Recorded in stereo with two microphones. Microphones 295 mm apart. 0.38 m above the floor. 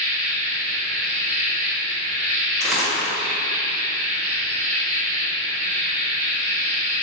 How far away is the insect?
About 1.0 m.